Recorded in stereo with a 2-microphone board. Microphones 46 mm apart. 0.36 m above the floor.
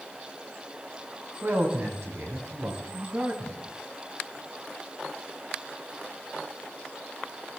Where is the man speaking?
60° right (ahead or behind), 3.5 m.